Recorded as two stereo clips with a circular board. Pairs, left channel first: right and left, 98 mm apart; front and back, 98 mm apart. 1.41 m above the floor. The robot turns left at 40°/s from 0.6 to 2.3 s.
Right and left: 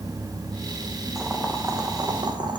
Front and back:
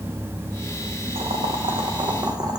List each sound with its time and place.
1.1 s boiling: 175° left, 1.0 m; by 2.6 s 130° left, 1.0 m